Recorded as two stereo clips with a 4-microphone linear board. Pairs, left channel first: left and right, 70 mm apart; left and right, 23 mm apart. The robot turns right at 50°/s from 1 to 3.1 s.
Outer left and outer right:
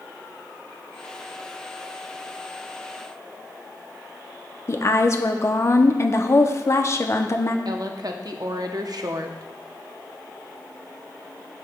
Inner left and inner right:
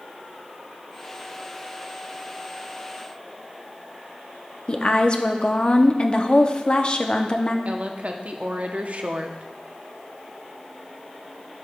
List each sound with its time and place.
4.7 s a woman speaking: 40° left (ahead or behind), 0.6 m
7.7 s a woman speaking: 60° right (ahead or behind), 0.7 m